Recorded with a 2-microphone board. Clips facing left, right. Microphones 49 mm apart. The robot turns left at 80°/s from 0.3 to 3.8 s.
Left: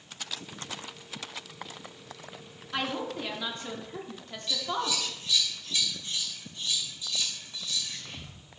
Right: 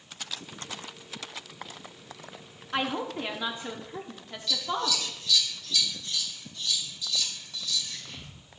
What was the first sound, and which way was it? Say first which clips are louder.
A woman speaking: right 2 dB; 25° right (ahead or behind).